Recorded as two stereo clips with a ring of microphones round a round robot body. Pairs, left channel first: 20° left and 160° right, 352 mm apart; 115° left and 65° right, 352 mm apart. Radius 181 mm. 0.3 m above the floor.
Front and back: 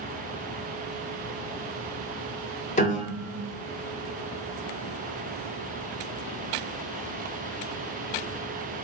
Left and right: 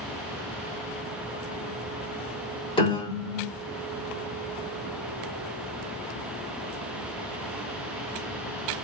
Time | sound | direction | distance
2.8 | a piano | 55° left | 1.0 m